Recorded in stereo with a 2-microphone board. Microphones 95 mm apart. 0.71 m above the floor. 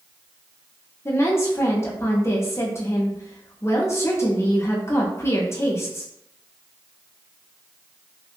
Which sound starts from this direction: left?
A woman speaking, at 1.1 s.